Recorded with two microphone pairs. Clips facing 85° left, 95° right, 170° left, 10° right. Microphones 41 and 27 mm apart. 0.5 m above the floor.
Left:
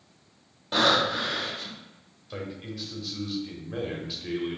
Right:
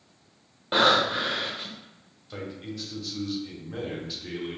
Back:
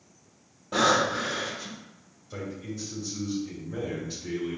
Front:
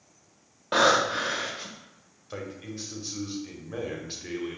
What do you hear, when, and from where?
0.7 s breathing: 30° right, 0.7 m
2.3 s a man speaking: 5° left, 1.0 m